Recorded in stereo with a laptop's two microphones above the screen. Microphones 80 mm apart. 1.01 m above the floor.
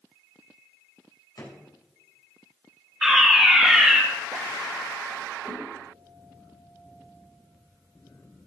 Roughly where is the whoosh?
Centre.